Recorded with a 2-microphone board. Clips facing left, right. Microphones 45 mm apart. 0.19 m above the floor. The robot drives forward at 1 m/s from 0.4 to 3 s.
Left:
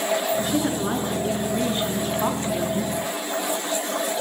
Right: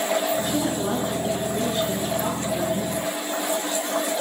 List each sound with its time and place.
0.4 s a woman speaking: 20° left (ahead or behind), 2.5 m; by 3.0 s 35° left (ahead or behind), 1.6 m